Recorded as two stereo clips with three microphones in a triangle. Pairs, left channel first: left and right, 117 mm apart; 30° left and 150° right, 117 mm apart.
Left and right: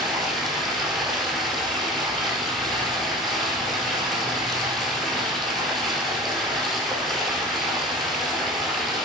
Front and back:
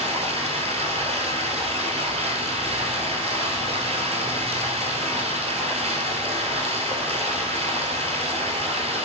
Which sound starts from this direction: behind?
Running water, at 0.0 s.